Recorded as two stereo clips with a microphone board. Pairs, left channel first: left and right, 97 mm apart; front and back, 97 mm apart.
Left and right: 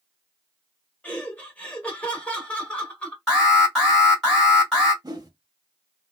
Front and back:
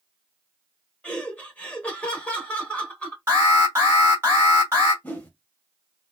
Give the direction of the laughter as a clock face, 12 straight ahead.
11 o'clock.